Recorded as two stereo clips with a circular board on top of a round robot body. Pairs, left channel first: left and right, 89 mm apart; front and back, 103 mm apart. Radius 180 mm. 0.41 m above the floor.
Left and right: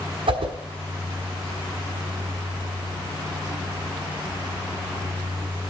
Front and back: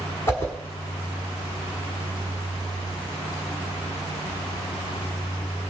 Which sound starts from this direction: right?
A whoosh, at 0.3 s.